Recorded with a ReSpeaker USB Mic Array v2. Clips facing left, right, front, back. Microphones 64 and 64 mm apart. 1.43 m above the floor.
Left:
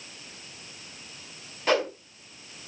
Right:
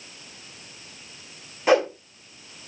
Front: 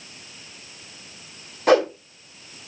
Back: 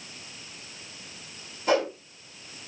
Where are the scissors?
I don't hear scissors.